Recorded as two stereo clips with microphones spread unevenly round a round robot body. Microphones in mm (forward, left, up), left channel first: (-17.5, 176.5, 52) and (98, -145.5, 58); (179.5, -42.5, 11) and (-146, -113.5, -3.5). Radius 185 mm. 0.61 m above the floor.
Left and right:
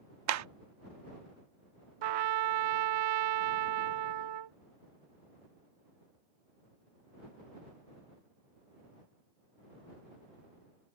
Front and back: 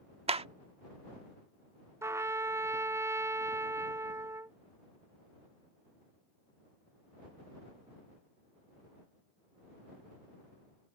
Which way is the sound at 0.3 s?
100° right.